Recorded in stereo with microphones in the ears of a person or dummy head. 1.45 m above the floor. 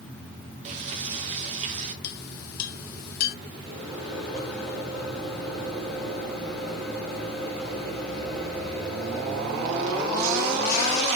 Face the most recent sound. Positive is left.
turn(degrees=5)  # may be behind; listen again after turning